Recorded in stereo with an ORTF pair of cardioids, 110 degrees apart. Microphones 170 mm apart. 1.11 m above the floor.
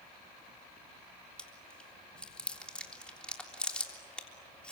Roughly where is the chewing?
Ahead.